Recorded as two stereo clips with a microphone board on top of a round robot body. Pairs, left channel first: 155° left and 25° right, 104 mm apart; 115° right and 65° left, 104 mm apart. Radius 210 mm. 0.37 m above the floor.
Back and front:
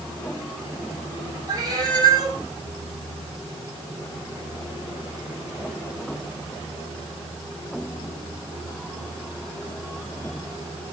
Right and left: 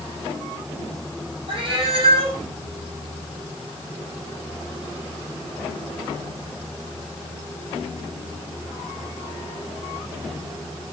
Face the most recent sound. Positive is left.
turn(degrees=25)